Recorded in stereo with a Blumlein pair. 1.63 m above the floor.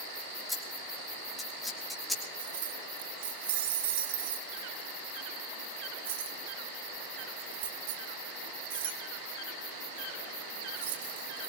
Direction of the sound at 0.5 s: 5° left.